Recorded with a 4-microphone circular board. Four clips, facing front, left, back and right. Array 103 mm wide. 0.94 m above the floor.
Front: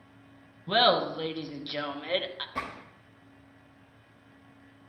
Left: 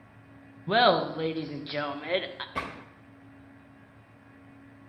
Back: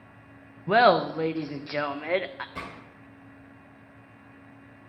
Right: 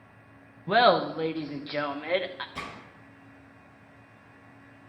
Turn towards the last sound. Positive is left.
turn(degrees=85)